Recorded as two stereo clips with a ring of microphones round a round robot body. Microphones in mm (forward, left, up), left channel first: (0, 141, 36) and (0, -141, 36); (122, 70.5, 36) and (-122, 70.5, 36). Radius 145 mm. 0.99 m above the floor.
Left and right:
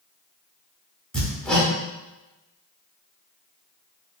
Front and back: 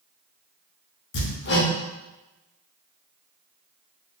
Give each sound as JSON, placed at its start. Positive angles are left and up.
{"t": 1.1, "sound": "hammering", "azimuth_deg": 5, "distance_m": 0.7}